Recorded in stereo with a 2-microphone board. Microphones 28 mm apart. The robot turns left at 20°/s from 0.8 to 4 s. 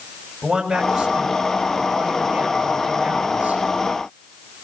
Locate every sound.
0.4 s a man speaking: 10° right, 6 m; by 3.6 s 65° right, 6 m